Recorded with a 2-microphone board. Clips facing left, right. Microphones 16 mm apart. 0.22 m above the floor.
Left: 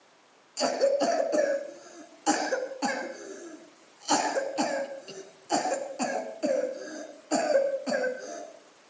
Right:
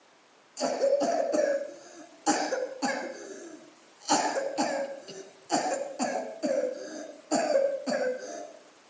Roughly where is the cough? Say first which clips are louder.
Left 1 dB; left.